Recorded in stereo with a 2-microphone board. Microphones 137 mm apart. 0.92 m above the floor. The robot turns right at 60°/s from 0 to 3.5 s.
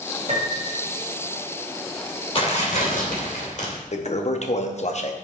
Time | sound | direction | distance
0.3 | a piano | 50° right (ahead or behind) | 2.5 m
2.4 | tearing paper | 45° left | 2.5 m
3.9 | a toilet flushing | 55° left (ahead or behind) | 0.8 m